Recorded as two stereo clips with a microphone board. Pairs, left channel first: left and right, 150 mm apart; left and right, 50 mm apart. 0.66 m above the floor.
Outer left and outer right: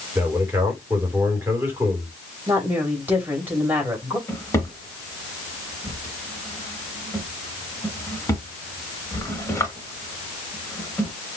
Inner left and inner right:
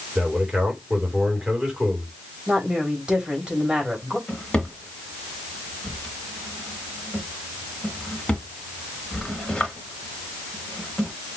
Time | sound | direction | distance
0.1 | a man speaking | 15° right (ahead or behind) | 2.5 m
2.5 | a woman speaking | 15° right (ahead or behind) | 3 m
4.3 | a drawer | 20° left (ahead or behind) | 1.5 m